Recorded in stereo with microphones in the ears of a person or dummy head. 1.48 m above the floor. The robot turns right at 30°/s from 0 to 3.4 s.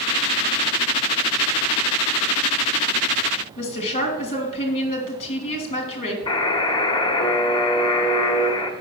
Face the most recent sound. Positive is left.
turn(degrees=30)  # may be behind; listen again after turning